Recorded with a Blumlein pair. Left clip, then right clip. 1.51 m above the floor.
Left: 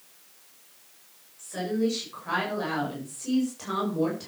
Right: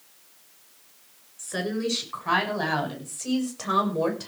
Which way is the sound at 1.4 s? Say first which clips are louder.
Even; 65° right.